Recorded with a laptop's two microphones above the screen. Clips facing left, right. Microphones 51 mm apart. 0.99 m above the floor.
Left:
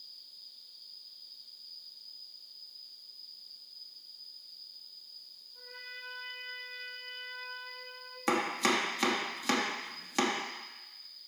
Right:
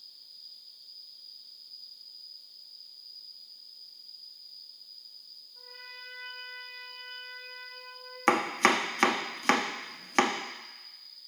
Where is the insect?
30° left (ahead or behind), 4 m.